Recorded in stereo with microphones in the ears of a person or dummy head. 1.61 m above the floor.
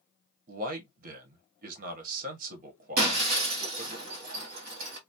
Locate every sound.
0.5 s a man speaking: 55° right (ahead or behind), 1.2 m
3.0 s breaking glass: 45° right (ahead or behind), 1.4 m